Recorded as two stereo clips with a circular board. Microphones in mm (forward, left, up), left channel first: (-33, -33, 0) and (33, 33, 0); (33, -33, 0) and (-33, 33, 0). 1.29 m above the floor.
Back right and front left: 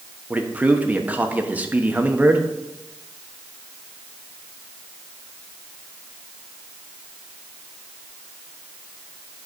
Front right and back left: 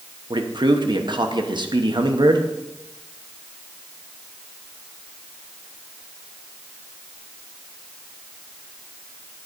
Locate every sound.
0.3 s a man speaking: 115° left, 1.0 m